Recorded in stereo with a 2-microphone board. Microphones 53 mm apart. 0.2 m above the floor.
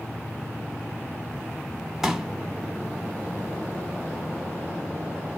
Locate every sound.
2.0 s a pop: 5° right (ahead or behind), 0.7 m